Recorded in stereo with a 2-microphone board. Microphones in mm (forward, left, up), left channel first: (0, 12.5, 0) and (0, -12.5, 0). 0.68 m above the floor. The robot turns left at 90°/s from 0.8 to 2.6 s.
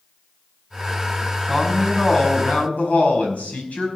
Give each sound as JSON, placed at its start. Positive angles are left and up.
{"t": 1.5, "sound": "a woman speaking", "azimuth_deg": -165, "distance_m": 5.0}